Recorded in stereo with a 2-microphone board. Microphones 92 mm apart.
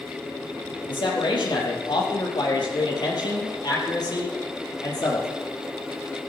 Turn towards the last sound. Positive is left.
turn(degrees=45)  # may be behind; listen again after turning